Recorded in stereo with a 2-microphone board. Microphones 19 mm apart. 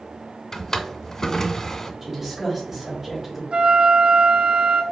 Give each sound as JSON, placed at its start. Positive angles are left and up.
{"t": 0.5, "sound": "a drawer", "side_deg": 30, "distance_m": 0.5}
{"t": 2.0, "sound": "a woman speaking", "side_deg": -15, "distance_m": 1.6}
{"t": 3.5, "sound": "a flute", "side_deg": -70, "distance_m": 0.6}